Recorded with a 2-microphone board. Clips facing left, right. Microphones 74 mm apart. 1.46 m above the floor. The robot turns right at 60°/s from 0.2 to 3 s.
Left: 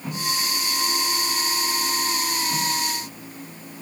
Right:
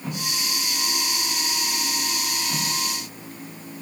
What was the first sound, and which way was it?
Only background noise.